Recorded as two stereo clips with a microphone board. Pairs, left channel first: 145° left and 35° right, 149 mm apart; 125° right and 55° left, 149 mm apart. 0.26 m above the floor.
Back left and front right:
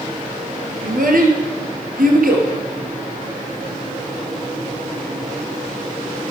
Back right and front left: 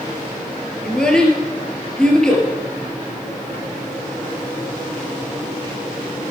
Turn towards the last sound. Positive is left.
turn(degrees=-40)